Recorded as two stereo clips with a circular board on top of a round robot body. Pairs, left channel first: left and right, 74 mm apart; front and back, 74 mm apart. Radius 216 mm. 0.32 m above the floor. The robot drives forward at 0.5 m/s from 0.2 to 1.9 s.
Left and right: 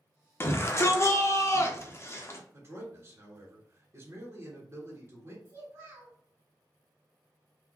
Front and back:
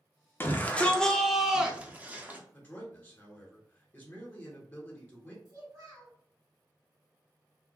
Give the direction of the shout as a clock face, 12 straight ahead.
10 o'clock.